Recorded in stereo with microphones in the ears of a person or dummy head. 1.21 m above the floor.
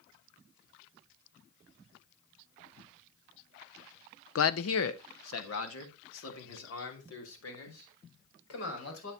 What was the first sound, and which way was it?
A man speaking, 70° left (ahead or behind).